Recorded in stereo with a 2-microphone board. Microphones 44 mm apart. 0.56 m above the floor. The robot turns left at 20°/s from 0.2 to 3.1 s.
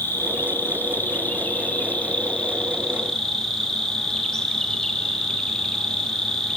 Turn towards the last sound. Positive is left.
turn(degrees=15)